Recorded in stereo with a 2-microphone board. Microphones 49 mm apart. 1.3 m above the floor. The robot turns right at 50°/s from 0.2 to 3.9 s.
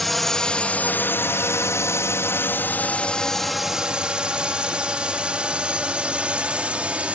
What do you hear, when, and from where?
0.0 s a drone: 5° left (ahead or behind); by 7.2 s 25° right (ahead or behind)